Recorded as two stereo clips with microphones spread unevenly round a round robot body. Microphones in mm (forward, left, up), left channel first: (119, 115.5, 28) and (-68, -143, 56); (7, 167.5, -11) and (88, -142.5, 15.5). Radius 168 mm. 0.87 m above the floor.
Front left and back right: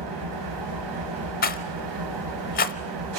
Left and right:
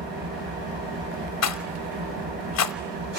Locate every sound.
0.0 s an engine running: 140° right, 4 m
1.4 s a rattle: 105° left, 0.8 m